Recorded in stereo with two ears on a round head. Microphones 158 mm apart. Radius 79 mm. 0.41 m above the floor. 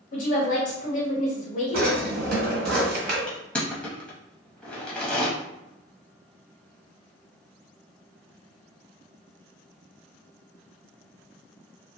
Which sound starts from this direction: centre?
Crushing, at 3.3 s.